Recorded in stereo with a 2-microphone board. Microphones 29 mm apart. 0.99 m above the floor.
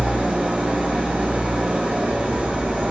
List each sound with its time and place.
0.0 s an engine running: 80° right, 3 m